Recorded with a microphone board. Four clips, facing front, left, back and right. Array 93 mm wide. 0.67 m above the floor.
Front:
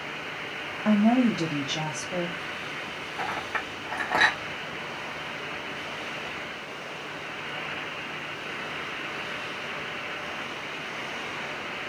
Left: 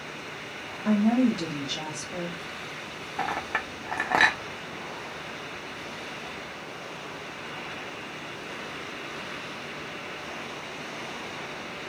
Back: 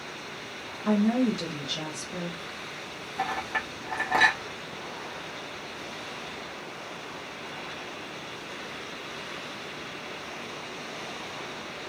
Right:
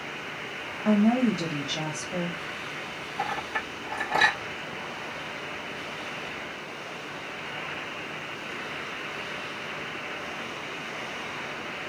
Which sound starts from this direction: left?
A clink, at 3.2 s.